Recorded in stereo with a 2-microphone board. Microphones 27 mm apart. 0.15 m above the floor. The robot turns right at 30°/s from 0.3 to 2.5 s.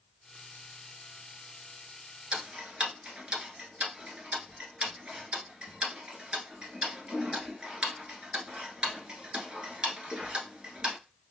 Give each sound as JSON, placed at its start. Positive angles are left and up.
{"t": 2.3, "sound": "ticking", "side_deg": -40, "distance_m": 1.3}